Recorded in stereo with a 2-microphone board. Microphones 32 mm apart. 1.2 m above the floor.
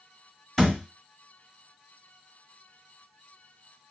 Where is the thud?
10° left (ahead or behind), 1.7 m.